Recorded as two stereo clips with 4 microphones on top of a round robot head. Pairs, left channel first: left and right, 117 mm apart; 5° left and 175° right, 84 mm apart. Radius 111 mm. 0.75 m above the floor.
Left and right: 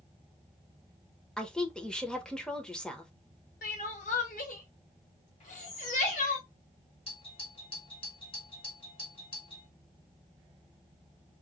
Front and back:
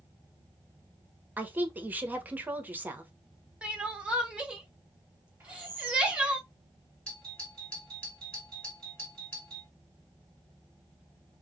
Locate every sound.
1.4 s a woman speaking: 160° left, 0.9 m
3.6 s crying: 110° left, 0.8 m
5.4 s a bird: 115° left, 1.7 m
7.1 s a doorbell: 80° left, 2 m